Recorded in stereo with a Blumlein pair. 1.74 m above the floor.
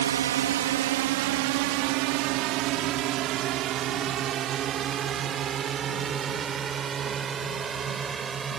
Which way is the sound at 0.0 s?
60° right.